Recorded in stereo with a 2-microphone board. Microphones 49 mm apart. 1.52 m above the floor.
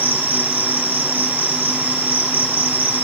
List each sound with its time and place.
0.0 s an insect: 40° right (ahead or behind), 1.5 m